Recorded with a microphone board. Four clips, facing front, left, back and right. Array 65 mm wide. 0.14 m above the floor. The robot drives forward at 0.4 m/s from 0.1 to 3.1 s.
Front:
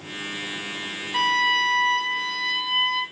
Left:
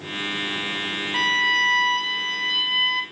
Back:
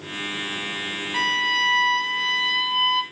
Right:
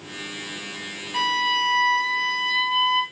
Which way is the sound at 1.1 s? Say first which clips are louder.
Left 1 dB, front 2 dB; 95° left.